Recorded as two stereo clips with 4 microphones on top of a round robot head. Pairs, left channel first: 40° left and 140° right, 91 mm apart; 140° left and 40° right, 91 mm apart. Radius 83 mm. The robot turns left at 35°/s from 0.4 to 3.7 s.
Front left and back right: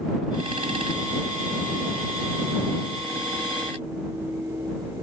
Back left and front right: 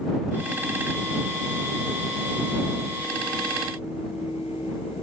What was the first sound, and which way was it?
Only background noise.